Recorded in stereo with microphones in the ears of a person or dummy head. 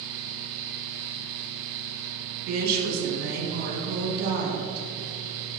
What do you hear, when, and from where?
2.5 s a woman speaking: 55° right (ahead or behind), 2.5 m